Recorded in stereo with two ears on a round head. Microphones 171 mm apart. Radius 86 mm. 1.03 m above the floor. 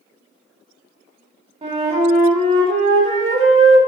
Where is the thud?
No thud in this recording.